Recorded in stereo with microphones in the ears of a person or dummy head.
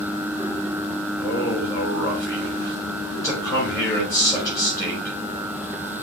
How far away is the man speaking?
About 4 m.